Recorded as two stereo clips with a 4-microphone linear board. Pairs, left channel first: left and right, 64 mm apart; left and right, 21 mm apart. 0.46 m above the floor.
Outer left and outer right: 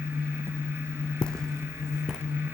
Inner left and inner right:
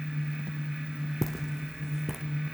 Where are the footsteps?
15° left (ahead or behind), 1.8 m; by 2.2 s 15° right (ahead or behind), 2.5 m.